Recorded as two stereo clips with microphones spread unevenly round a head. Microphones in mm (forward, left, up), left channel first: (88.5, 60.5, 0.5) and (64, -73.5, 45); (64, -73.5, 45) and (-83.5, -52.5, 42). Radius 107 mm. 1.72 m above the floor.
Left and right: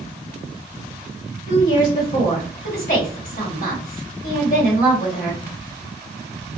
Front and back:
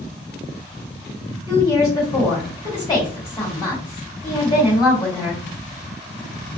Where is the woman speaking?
65° left, 1.8 m.